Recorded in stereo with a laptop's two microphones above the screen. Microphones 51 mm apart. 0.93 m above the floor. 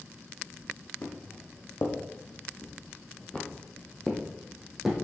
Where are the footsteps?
60° left (ahead or behind), 2 m; by 5.0 s 5° right (ahead or behind), 1.8 m.